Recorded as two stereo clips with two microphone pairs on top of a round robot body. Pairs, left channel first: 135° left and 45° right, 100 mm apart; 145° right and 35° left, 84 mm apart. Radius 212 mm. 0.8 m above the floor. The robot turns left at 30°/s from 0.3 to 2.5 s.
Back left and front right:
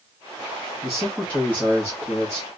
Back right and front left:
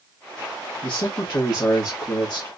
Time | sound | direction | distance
0.8 | a man speaking | 130° right | 1.5 m